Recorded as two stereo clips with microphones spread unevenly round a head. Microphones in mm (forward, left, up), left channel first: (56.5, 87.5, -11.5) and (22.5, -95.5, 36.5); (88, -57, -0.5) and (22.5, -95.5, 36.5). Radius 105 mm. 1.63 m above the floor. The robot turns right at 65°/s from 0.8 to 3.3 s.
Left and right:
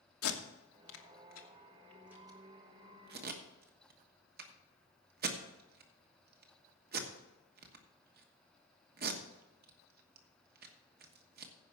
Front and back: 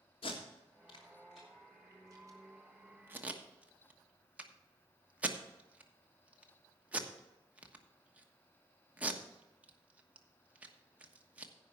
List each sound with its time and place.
0.2 s tape being pulled: 100° left, 1.3 m; by 11.5 s 100° right, 1.3 m